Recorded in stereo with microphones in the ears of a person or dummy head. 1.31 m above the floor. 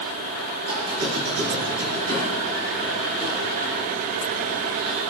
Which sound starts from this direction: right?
A squeak, at 0.6 s.